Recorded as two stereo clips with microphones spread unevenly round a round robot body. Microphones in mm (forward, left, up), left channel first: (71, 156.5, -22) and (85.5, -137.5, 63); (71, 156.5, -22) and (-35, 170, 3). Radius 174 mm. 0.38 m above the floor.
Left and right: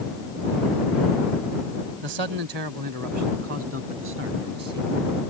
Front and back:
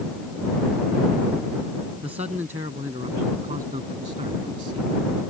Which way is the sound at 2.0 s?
115° right.